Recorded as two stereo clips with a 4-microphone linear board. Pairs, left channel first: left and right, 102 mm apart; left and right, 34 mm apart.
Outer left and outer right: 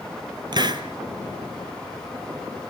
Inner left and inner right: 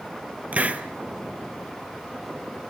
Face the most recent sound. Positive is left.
turn(degrees=-45)  # may be behind; listen again after turning